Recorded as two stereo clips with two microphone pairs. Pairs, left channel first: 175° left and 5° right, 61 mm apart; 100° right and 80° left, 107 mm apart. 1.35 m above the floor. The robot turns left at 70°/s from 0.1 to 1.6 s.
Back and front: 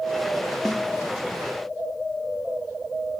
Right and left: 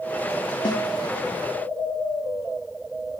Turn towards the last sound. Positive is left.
turn(degrees=-165)